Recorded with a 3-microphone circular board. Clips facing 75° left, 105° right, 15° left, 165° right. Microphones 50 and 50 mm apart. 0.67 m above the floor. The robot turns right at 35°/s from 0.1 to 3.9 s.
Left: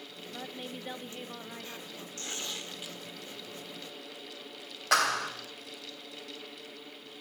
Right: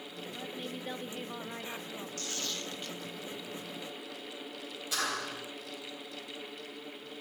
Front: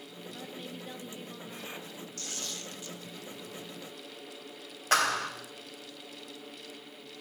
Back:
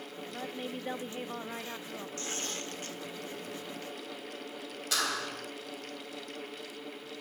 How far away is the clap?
About 3 m.